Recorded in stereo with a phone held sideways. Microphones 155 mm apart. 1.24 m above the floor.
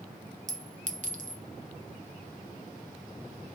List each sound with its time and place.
0.5 s a clink: 55° right (ahead or behind), 0.5 m